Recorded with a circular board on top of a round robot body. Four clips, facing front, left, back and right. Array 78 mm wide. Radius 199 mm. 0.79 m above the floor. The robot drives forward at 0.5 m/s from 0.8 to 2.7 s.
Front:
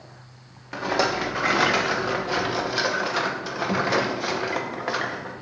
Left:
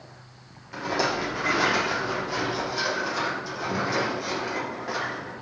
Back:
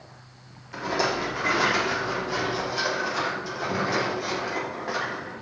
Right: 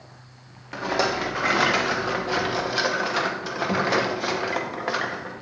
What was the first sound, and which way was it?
A rattle, 35° right.